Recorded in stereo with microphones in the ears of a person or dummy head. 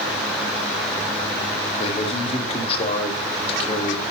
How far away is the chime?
No chime in this recording.